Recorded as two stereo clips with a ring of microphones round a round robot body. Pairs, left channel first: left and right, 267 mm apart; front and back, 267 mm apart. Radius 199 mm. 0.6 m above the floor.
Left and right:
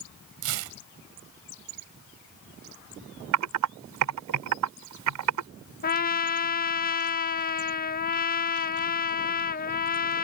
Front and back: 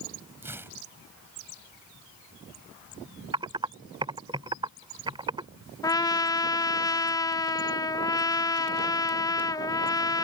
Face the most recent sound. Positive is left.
turn(degrees=70)